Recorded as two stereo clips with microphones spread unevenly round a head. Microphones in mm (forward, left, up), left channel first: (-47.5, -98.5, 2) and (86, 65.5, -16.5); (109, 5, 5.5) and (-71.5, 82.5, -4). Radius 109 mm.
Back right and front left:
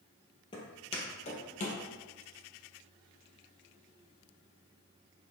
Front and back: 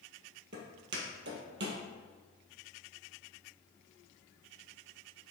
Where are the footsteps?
170° left, 2 m; by 1.8 s 170° right, 2.5 m.